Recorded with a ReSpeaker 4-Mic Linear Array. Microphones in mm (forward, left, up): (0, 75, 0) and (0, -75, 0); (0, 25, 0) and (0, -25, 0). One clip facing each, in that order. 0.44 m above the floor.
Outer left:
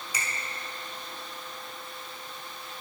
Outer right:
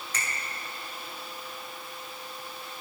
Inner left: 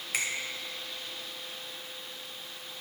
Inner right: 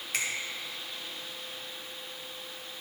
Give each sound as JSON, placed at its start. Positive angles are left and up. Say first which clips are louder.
{"t": 0.1, "sound": "a finger snap", "louder": "even, inner left 1 dB", "side_deg": 10, "distance_m": 2.0}